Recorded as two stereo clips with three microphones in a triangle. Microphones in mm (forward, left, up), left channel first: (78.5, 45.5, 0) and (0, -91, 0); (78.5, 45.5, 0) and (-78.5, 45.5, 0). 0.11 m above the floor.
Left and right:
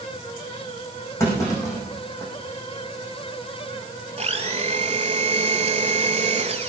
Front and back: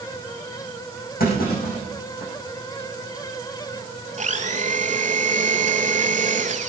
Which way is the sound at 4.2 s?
155° right.